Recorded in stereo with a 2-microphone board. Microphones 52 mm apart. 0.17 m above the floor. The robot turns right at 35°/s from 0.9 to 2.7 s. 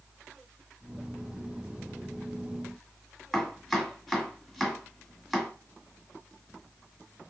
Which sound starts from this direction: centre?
Chopping, at 3.3 s.